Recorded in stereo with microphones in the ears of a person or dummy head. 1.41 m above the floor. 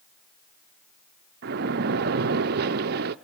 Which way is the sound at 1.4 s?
50° right (ahead or behind).